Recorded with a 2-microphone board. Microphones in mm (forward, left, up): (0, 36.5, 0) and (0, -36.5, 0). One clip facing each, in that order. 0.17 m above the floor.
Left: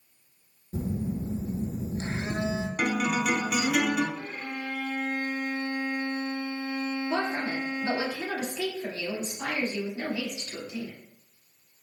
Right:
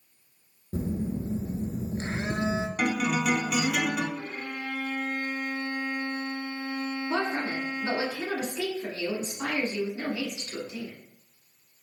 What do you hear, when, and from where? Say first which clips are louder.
0.7 s a phone buzzing: right 1 dB; 40° right (ahead or behind), 0.7 m
2.8 s a guitar: left 1 dB; 5° left (ahead or behind), 0.7 m
4.2 s a violin: even; 30° right (ahead or behind), 1.8 m
7.1 s a woman speaking: right 2 dB; 35° right (ahead or behind), 1.6 m